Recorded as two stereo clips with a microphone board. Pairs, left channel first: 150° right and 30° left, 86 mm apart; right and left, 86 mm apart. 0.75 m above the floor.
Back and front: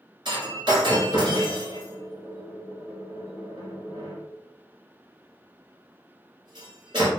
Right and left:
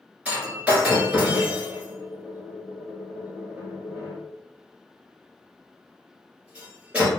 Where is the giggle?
No giggle in this recording.